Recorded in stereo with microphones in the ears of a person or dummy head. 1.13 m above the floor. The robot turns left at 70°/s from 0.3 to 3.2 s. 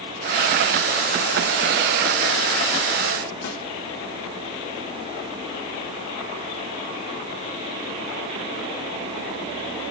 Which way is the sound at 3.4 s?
75° left (ahead or behind).